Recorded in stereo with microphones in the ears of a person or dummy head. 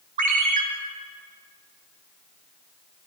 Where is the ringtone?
45° right (ahead or behind), 1.1 m.